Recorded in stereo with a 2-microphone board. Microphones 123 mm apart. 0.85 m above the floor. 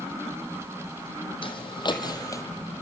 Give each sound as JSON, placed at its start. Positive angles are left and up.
{"t": 1.4, "sound": "footsteps", "side_deg": 50, "distance_m": 2.0}